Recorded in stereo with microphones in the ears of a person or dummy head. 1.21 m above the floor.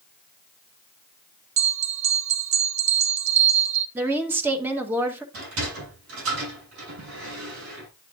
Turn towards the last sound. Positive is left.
turn(degrees=-70)  # may be behind; listen again after turning